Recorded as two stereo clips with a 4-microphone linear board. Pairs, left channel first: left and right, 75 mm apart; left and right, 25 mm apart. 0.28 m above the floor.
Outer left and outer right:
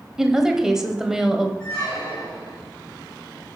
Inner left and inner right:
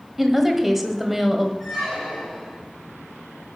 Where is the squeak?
5° left (ahead or behind), 7 m.